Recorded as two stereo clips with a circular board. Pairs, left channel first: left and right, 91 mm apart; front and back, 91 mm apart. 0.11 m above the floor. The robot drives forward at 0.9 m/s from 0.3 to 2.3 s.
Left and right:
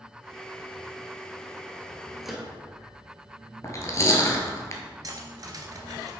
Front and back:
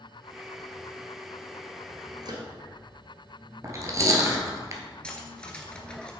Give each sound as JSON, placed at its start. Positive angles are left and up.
{"t": 2.2, "sound": "a microwave", "azimuth_deg": 180, "distance_m": 1.4}
{"t": 3.6, "sound": "chewing", "azimuth_deg": 135, "distance_m": 1.5}
{"t": 5.0, "sound": "cutlery clinking", "azimuth_deg": -75, "distance_m": 1.2}